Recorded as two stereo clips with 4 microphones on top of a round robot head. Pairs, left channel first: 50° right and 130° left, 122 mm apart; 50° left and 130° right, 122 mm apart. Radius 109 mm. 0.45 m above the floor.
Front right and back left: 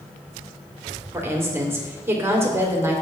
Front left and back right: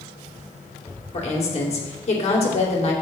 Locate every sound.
1.1 s a woman speaking: 60° left, 2.5 m